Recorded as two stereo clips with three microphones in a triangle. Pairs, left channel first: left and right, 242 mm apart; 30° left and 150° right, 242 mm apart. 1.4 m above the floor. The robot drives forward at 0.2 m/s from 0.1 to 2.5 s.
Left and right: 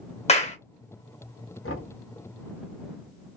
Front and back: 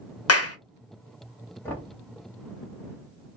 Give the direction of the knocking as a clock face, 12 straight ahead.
8 o'clock.